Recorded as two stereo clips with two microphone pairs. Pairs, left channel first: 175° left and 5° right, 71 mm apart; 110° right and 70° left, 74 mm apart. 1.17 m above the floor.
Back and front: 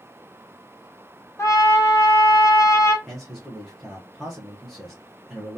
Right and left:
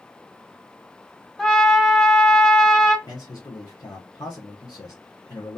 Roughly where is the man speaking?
Right.